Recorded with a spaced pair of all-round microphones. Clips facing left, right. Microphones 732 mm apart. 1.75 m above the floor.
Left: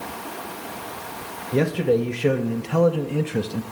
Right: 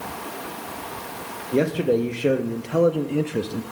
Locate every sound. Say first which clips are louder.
1.5 s a man speaking: even; 30° left (ahead or behind), 1.3 m; by 3.6 s 20° left (ahead or behind), 0.6 m